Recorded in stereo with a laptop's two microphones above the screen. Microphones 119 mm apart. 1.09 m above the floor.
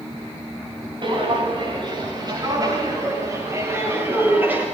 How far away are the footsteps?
About 9.5 m.